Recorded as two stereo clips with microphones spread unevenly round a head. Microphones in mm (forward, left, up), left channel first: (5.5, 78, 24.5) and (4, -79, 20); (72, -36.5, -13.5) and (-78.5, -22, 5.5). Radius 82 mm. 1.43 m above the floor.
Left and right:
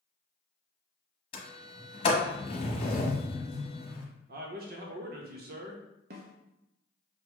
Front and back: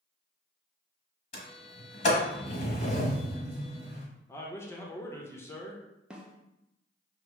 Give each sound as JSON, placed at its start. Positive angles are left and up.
{"t": 1.3, "sound": "a sliding door", "azimuth_deg": 45, "distance_m": 1.0}
{"t": 4.3, "sound": "a man speaking", "azimuth_deg": -75, "distance_m": 0.8}
{"t": 6.1, "sound": "a snare drum", "azimuth_deg": -105, "distance_m": 0.7}